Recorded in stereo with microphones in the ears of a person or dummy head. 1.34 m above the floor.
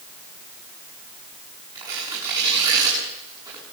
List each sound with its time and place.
1.8 s tearing paper: 15° right (ahead or behind), 7.5 m